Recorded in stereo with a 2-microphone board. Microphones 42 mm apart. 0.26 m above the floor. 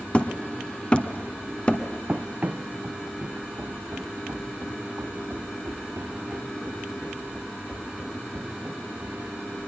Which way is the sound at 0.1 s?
25° left (ahead or behind).